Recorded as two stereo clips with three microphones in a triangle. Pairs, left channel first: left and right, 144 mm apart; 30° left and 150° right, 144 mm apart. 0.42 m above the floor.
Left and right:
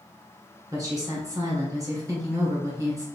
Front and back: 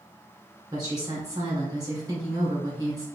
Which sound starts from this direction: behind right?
A woman speaking, at 0.7 s.